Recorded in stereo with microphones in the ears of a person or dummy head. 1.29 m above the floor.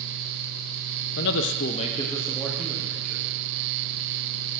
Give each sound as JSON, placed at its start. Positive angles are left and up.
{"t": 1.2, "sound": "a man speaking", "side_deg": 55, "distance_m": 0.6}